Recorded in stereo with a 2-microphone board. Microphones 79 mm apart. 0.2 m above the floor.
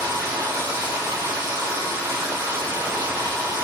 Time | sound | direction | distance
0.0 | running water | 50° right (ahead or behind) | 3.5 m